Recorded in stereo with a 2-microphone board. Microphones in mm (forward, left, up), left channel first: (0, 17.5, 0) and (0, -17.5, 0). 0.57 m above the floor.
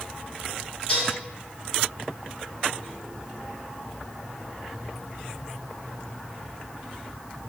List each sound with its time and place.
0.9 s dishes clattering: 35° left (ahead or behind), 5 m